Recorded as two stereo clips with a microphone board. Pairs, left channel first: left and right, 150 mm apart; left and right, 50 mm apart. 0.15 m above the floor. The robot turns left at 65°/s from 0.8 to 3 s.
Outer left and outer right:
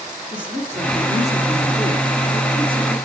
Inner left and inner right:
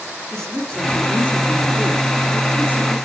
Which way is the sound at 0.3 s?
160° left.